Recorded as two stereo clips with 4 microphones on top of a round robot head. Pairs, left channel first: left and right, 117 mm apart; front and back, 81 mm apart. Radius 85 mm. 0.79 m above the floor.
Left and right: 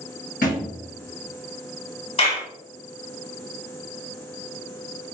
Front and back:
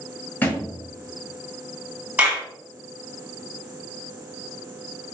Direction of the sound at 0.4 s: 60° left.